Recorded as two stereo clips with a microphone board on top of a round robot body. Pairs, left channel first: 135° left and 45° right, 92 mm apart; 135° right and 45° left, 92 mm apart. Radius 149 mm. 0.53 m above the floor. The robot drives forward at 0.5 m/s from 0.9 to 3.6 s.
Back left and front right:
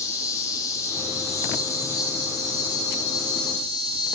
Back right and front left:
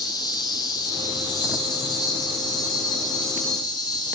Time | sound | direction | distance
0.0 | an insect | 170° right | 3.5 m